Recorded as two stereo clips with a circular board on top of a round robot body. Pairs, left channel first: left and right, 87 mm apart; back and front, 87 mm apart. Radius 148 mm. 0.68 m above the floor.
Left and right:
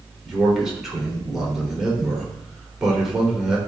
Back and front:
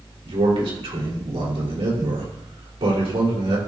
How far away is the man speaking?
About 3.5 m.